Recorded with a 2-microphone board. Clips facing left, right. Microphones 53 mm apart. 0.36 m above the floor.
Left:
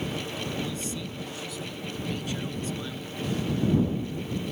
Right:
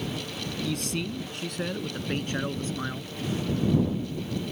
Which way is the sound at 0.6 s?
70° right (ahead or behind).